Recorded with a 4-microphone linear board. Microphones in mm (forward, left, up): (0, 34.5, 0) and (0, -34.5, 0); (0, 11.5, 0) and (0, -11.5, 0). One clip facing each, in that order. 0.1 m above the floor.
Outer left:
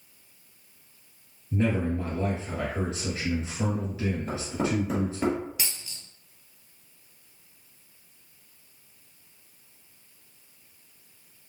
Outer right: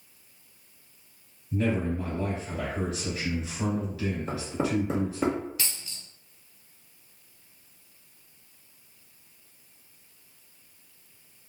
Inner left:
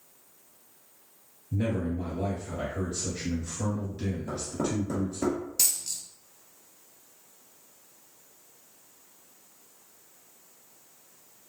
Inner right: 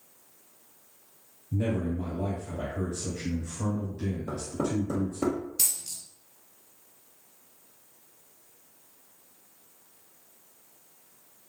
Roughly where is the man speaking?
Left.